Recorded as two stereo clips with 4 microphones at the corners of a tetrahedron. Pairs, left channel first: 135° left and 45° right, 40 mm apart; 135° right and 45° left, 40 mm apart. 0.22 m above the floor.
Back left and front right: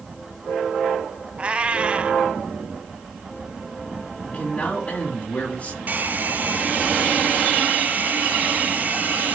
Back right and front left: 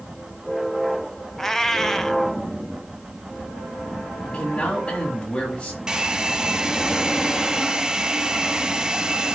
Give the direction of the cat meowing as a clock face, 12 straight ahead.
2 o'clock.